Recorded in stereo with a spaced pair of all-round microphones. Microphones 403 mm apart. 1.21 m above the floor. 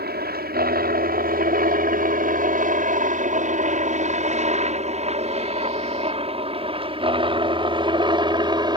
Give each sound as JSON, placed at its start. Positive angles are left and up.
{"t": 0.0, "sound": "a helicopter", "side_deg": -25}